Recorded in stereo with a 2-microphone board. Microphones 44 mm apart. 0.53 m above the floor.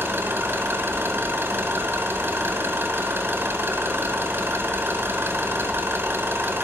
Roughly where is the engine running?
Right.